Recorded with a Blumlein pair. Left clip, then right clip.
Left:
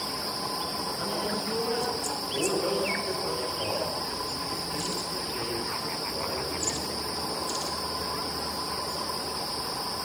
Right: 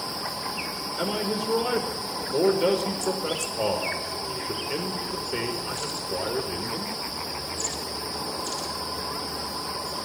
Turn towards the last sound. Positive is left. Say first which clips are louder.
# right 6 dB
turn(degrees=-35)